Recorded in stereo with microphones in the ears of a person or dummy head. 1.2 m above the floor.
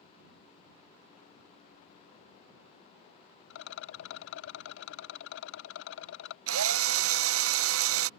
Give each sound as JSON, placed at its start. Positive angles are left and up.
{"t": 3.5, "sound": "a rattle", "side_deg": 65}
{"t": 6.5, "sound": "a drill", "side_deg": -65}